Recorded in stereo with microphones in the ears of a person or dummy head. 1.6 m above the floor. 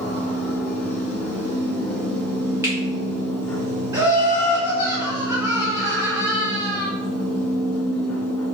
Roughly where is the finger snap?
Centre.